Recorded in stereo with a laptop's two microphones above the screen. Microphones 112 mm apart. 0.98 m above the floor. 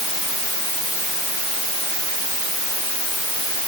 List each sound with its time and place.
Only background noise.